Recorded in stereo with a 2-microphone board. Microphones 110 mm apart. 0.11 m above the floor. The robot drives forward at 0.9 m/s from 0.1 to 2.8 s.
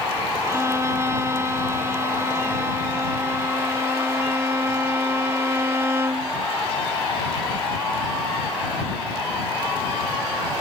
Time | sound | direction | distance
0.5 | a violin | 25° right (ahead or behind) | ?